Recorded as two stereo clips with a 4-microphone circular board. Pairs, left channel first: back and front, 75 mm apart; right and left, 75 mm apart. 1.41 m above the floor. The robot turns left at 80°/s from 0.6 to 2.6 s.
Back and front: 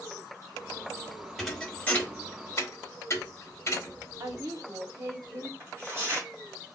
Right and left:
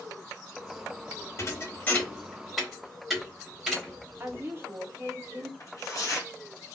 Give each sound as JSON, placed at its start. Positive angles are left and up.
{"t": 1.4, "sound": "a thud", "azimuth_deg": -85, "distance_m": 1.0}
{"t": 4.2, "sound": "a woman speaking", "azimuth_deg": 35, "distance_m": 0.7}
{"t": 5.6, "sound": "tearing paper", "azimuth_deg": -50, "distance_m": 1.2}